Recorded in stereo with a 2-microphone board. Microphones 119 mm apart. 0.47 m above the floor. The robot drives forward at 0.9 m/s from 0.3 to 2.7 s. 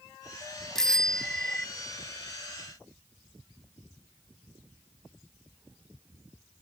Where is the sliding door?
No sliding door in this recording.